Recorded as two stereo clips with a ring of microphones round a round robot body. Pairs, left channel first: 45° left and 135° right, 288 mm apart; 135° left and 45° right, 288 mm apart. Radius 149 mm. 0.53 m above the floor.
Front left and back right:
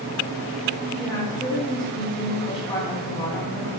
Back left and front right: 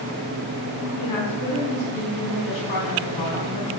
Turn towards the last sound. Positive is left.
turn(degrees=120)